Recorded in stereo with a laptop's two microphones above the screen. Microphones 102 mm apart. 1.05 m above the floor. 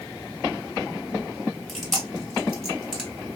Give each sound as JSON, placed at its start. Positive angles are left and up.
{"t": 1.7, "sound": "chewing", "side_deg": 0, "distance_m": 1.5}